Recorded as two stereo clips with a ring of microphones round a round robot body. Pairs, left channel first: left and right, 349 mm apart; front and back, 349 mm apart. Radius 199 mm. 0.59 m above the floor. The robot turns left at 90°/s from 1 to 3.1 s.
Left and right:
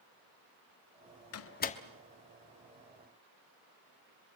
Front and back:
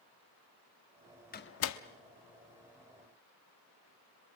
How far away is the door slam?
About 1.0 m.